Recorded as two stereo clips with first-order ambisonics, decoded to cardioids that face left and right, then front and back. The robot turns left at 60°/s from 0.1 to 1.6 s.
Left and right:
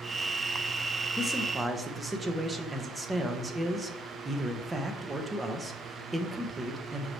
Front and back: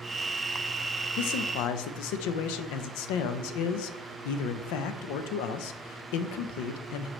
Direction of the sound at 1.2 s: 15° left.